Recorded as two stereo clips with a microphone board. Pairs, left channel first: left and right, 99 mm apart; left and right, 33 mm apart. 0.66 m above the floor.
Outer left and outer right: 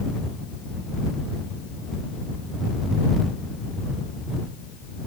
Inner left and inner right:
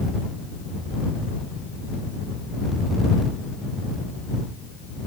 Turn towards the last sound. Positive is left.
No sound to turn to.